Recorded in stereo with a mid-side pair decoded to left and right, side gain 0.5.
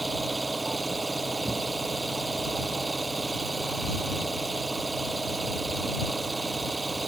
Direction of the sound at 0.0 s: 20° right.